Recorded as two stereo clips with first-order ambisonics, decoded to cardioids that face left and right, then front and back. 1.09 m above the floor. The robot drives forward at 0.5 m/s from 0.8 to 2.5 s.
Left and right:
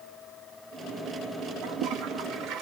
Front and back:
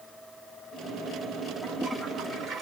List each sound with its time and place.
1.6 s a toilet flushing: 95° right, 0.7 m; by 2.6 s 130° right, 0.8 m